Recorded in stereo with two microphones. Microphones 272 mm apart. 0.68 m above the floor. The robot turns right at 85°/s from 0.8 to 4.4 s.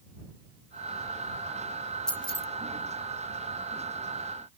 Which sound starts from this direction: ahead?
Keys jangling, at 2.1 s.